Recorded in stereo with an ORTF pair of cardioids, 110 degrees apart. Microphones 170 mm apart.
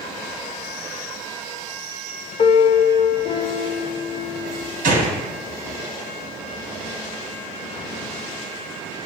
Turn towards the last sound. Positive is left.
turn(degrees=-55)